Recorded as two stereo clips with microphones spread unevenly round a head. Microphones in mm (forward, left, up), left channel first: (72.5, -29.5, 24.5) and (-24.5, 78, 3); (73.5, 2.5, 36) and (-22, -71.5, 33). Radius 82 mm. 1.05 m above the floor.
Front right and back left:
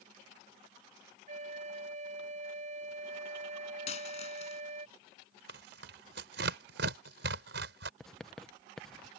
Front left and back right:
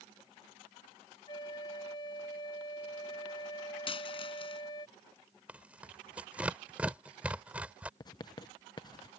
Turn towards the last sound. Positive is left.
turn(degrees=50)